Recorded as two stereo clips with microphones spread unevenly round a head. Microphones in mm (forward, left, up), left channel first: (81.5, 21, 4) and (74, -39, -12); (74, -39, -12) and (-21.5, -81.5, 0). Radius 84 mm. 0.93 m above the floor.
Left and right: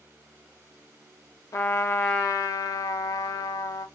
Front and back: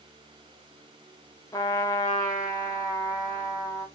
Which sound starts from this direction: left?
A trumpet, at 1.5 s.